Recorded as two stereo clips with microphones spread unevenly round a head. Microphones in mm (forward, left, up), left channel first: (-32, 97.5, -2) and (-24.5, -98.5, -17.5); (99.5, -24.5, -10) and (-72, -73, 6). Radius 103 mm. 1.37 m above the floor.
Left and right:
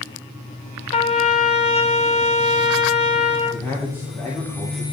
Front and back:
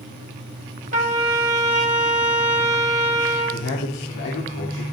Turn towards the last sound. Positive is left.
turn(degrees=10)